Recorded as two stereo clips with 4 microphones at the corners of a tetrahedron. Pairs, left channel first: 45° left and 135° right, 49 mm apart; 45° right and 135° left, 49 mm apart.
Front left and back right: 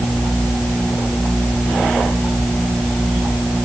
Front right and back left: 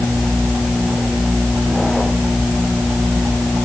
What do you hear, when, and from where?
Only background noise.